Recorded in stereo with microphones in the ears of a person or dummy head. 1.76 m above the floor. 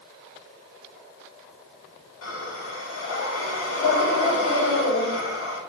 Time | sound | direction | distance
2.2 | breathing | 75° left (ahead or behind) | 2.5 m